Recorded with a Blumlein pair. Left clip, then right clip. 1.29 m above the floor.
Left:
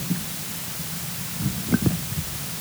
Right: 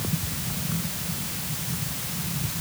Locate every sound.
Only background noise.